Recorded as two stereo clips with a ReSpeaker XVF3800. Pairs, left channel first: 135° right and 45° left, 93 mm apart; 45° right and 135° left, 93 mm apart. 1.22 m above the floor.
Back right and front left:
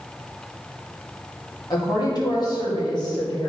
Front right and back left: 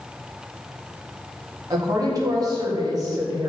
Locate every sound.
1.7 s a woman speaking: 175° right, 2 m